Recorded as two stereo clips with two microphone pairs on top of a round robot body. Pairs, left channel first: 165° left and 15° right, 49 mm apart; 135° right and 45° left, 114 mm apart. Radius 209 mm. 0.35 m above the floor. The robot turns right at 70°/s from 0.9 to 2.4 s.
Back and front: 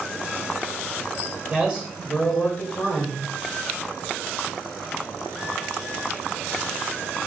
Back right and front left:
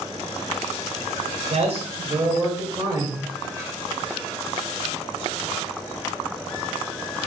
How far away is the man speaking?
About 1.6 m.